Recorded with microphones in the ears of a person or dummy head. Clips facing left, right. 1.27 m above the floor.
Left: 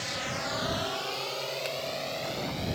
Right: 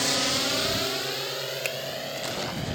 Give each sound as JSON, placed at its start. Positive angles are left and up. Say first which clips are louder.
{"t": 0.0, "sound": "a drone", "louder": "right 7 dB", "side_deg": -70}
{"t": 1.6, "sound": "a finger snap", "louder": "right 1 dB", "side_deg": -40}